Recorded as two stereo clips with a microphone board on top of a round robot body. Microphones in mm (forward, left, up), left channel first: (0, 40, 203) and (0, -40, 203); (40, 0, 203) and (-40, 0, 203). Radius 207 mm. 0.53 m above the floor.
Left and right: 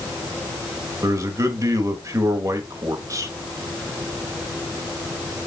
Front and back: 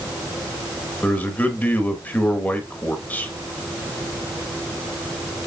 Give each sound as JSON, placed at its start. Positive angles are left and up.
{"t": 1.0, "sound": "a man speaking", "azimuth_deg": -60, "distance_m": 1.5}